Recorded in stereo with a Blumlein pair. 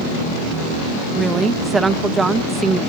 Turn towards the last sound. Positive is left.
turn(degrees=-15)